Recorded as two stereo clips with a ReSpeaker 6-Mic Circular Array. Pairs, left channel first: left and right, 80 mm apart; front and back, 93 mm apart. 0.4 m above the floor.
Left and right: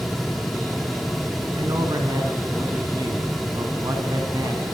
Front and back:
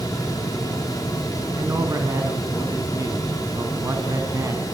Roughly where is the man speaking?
Behind right.